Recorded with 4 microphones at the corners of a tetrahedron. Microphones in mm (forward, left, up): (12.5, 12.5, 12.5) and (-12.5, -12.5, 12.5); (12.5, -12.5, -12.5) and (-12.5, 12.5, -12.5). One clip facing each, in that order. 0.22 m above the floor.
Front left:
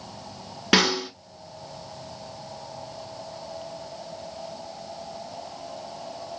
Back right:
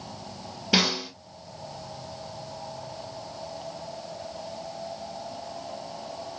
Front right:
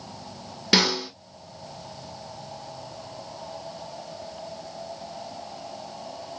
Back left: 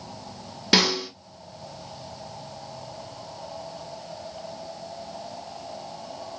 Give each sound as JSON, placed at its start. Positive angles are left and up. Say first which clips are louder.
{"t": 0.7, "sound": "a snare drum", "louder": "front left 3 dB, back left 1 dB", "azimuth_deg": 45, "distance_m": 1.8}